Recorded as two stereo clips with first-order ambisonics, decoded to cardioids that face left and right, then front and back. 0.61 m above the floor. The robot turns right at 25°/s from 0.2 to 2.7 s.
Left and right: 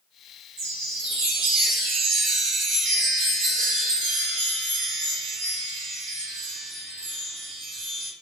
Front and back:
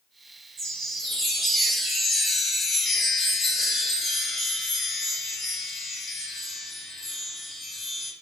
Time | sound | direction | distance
0.6 | a chime | 120° right | 1.6 m